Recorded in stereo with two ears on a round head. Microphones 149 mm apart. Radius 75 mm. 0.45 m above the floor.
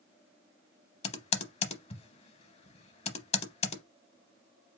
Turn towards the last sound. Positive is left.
turn(degrees=35)  # may be behind; listen again after turning